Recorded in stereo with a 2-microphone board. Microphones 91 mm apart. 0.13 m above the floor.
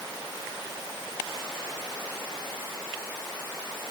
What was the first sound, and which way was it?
Only background noise.